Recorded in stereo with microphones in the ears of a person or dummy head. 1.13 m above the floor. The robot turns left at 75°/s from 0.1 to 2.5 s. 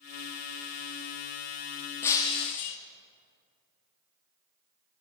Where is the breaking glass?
165° left, 0.7 m; by 2.8 s 125° left, 0.7 m.